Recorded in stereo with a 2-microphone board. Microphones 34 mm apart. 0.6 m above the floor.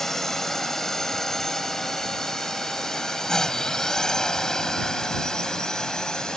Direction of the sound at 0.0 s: 10° left (ahead or behind).